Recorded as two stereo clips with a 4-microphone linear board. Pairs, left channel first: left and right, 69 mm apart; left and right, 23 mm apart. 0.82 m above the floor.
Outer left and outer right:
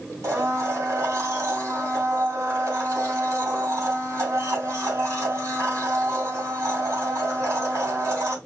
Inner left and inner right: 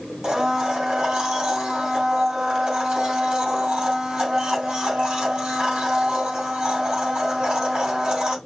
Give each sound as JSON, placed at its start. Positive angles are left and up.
{"t": 0.2, "sound": "a blender", "side_deg": -35, "distance_m": 3.0}